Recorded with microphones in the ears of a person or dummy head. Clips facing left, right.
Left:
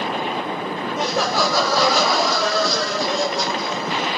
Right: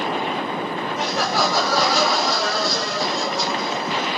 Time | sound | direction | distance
1.0 | laughter | 70° left (ahead or behind) | 0.6 m